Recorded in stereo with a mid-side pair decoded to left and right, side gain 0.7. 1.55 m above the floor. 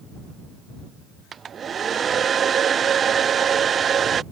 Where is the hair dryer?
30° right.